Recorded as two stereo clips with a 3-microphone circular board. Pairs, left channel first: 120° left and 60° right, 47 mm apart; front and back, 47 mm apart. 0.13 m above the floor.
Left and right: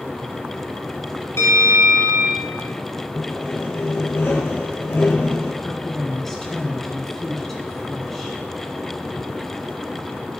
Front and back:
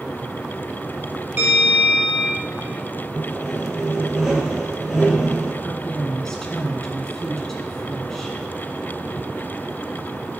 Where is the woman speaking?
55° left, 1.2 m.